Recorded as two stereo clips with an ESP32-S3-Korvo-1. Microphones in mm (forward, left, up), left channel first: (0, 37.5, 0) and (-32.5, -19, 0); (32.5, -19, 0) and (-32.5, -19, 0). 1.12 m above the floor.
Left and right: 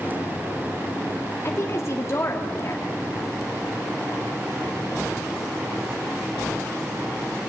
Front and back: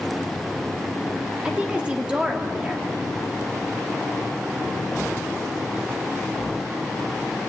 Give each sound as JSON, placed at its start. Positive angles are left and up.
{"t": 1.4, "sound": "a woman speaking", "azimuth_deg": 105, "distance_m": 1.8}